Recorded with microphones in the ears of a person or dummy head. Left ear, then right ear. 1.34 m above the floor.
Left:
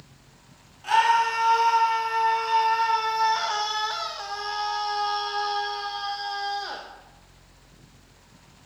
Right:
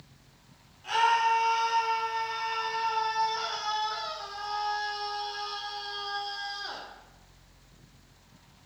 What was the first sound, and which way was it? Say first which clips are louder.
A scream: left 4 dB; 40° left (ahead or behind).